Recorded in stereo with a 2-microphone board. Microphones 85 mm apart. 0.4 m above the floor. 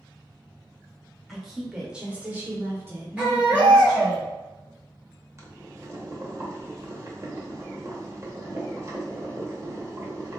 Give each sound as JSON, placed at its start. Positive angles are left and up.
{"t": 1.3, "sound": "a woman speaking", "side_deg": 0, "distance_m": 1.3}
{"t": 3.2, "sound": "a baby crying", "side_deg": -10, "distance_m": 1.3}
{"t": 5.4, "sound": "boiling", "side_deg": -35, "distance_m": 0.9}